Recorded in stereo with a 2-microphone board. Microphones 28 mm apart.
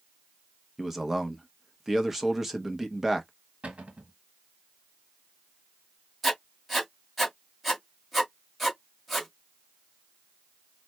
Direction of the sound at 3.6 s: 50° right (ahead or behind).